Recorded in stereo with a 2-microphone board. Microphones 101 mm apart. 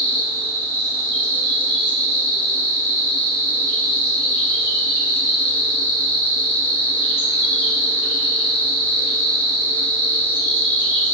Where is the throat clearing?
I don't hear throat clearing.